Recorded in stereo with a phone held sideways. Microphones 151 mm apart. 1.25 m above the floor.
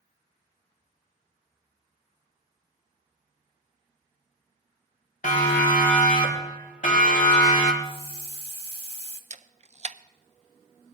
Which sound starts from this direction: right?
A camera shutter, at 9.3 s.